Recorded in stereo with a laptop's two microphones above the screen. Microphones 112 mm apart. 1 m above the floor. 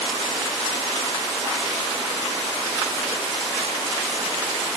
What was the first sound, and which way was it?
Only background noise.